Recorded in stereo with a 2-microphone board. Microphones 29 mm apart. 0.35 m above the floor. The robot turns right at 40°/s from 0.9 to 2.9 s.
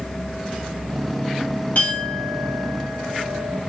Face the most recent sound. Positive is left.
turn(degrees=120)